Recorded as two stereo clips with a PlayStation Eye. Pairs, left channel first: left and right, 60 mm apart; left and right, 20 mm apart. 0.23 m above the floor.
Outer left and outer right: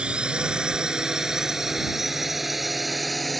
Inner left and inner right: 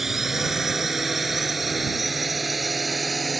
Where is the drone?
20° right (ahead or behind); by 3.4 s centre (ahead or behind).